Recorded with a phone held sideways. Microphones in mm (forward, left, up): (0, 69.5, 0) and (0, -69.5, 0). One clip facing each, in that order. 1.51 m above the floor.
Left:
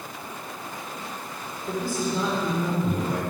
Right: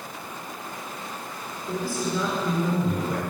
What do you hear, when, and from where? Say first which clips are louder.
1.7 s a man speaking: left 1 dB; 25° left (ahead or behind), 4.5 m; by 3.2 s 15° left (ahead or behind), 5 m